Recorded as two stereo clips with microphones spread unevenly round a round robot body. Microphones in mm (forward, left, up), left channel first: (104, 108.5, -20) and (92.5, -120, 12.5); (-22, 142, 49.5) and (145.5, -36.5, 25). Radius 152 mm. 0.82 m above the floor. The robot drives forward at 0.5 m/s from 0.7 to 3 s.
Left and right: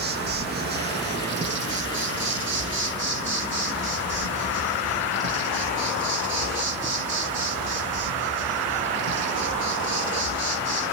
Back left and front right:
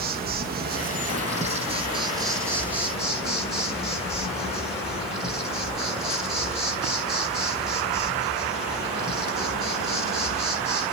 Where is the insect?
60° right, 1.5 m; by 10.9 s 130° right, 1.5 m.